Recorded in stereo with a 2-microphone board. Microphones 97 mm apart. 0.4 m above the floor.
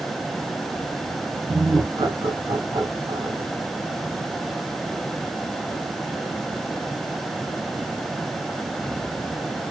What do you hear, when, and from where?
1.5 s laughter: 40° right (ahead or behind), 5 m; by 3.5 s 50° right (ahead or behind), 3 m